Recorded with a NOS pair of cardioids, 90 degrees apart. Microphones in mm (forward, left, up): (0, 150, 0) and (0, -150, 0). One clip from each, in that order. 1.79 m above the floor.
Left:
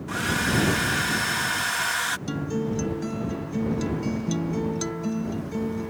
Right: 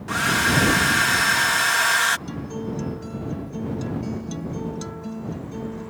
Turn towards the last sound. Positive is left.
turn(degrees=35)